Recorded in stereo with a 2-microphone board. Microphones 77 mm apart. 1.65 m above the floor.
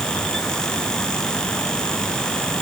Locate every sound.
Only background noise.